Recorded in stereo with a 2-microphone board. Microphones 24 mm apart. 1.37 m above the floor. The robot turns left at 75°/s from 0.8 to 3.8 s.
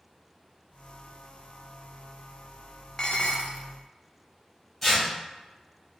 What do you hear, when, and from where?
3.0 s dishes clattering: 145° left, 0.5 m; by 3.7 s 95° left, 0.5 m
4.8 s tearing paper: 20° left (ahead or behind), 2.0 m